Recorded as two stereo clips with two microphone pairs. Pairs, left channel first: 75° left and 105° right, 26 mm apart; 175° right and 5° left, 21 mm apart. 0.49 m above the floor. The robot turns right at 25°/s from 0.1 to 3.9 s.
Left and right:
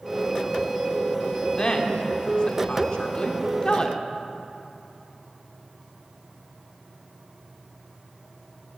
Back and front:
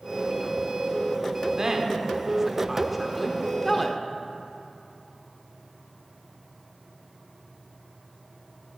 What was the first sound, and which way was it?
A woman speaking, 50° left.